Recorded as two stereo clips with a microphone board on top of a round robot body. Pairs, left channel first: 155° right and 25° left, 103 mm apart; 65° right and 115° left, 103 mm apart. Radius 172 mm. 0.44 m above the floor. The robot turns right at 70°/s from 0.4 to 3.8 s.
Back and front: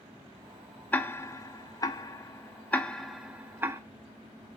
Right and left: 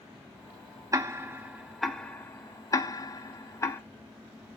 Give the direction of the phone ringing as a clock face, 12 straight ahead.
No phone ringing in this recording.